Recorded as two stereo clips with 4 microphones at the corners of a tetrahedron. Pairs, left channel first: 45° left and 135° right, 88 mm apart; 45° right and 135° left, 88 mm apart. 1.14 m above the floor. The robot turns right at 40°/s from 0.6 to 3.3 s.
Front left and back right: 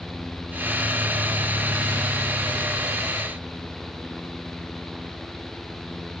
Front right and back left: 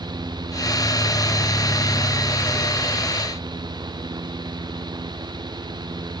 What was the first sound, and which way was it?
Only background noise.